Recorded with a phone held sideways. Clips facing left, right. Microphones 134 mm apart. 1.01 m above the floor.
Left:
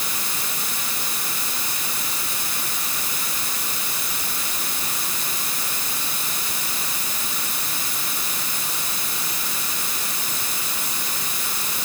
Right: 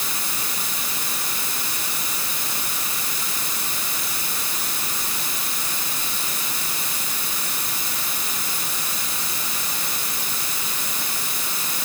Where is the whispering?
I don't hear whispering.